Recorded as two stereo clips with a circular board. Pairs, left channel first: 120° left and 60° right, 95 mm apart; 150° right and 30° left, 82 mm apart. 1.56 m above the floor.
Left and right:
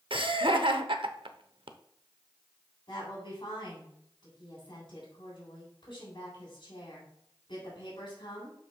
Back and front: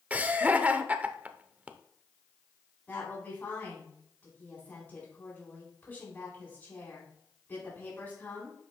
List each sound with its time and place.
0.1 s laughter: 40° right, 0.8 m
2.9 s a woman speaking: 150° left, 3.5 m